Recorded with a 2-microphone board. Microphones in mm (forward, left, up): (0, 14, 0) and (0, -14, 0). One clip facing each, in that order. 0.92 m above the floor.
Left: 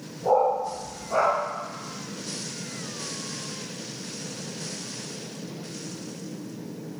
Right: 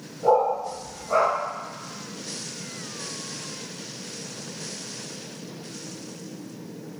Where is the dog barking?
55° right (ahead or behind), 1.6 m.